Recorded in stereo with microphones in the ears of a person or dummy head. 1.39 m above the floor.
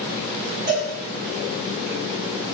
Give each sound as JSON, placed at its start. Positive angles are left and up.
{"t": 0.7, "sound": "a cowbell", "side_deg": -55, "distance_m": 1.6}